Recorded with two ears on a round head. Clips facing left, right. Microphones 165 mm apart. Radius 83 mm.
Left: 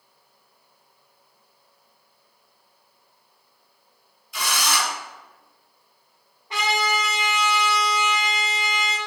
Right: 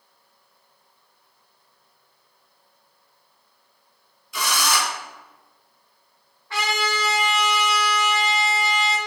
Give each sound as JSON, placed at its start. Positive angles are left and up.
{"t": 4.3, "sound": "a drill", "side_deg": -80, "distance_m": 1.7}
{"t": 6.5, "sound": "a trumpet", "side_deg": 20, "distance_m": 1.9}